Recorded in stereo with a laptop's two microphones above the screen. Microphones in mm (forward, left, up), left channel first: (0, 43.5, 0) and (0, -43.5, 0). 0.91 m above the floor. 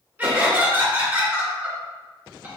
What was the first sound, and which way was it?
Laughter, 20° right (ahead or behind).